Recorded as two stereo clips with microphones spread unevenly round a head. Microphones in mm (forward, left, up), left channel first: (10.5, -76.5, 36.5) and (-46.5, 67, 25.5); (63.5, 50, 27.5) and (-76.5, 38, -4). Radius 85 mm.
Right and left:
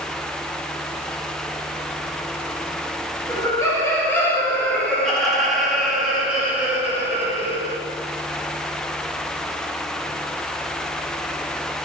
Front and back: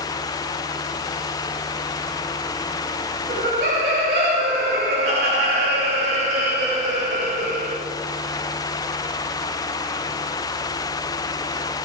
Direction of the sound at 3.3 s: 135° right.